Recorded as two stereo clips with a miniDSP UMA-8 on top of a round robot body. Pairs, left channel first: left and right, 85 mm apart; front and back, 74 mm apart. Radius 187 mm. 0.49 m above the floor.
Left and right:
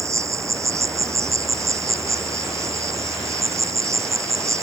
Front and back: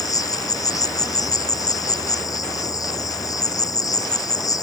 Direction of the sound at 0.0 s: 35° right.